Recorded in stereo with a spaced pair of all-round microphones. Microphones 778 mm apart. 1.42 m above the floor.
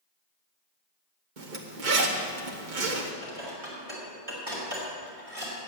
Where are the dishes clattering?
45° right (ahead or behind), 3.5 m.